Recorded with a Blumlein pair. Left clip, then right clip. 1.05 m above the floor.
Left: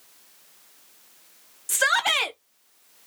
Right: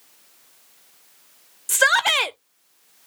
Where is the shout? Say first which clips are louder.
Right 4 dB; 15° right, 0.7 m.